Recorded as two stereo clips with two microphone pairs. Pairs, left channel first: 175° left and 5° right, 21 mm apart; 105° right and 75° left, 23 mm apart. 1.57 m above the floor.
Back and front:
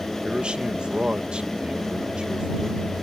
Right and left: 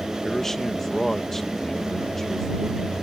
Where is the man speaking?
35° right.